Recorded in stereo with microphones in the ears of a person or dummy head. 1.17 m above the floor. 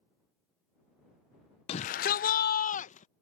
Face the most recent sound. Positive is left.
turn(degrees=35)  # may be behind; listen again after turning